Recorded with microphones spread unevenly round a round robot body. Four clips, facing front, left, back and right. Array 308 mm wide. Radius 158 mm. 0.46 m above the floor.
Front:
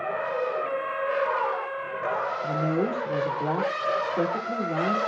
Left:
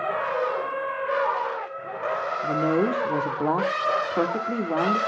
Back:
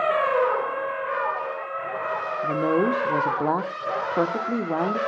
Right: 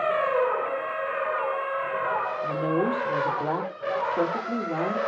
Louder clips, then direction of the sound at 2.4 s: Left 4 dB, back 7 dB; 125° left.